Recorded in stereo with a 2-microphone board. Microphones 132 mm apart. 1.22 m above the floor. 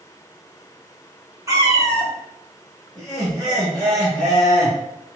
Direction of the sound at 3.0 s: 20° left (ahead or behind).